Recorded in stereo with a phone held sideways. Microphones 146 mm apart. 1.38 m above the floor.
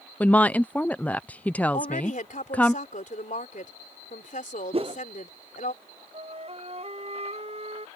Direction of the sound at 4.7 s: 40° right (ahead or behind).